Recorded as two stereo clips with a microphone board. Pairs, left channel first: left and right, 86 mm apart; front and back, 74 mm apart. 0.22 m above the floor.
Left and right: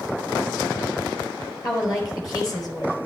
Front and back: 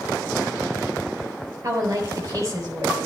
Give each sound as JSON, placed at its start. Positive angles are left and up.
{"t": 1.6, "sound": "a woman speaking", "azimuth_deg": 135, "distance_m": 4.0}